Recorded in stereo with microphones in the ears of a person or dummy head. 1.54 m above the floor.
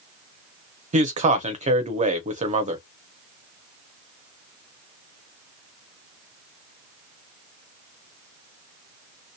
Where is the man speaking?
35° right (ahead or behind), 0.7 m.